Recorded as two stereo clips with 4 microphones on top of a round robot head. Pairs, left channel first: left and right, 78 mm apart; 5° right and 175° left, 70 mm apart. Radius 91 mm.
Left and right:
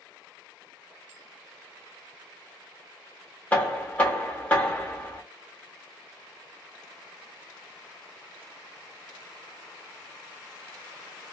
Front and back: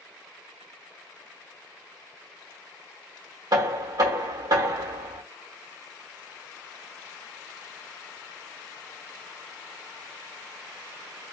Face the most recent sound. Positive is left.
turn(degrees=160)